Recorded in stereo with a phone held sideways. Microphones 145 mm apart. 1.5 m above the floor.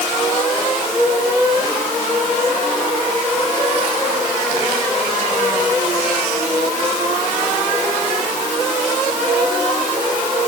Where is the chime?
No chime in this recording.